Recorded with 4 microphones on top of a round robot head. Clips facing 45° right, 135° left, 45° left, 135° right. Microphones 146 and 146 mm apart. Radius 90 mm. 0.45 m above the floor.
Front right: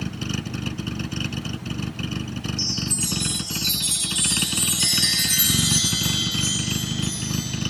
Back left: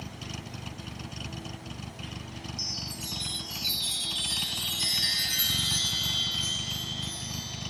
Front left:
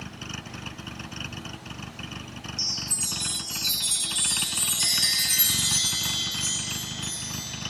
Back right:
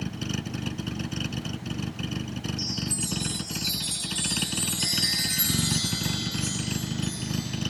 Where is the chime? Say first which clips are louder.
Front right 12 dB, back right 8 dB; 20° right.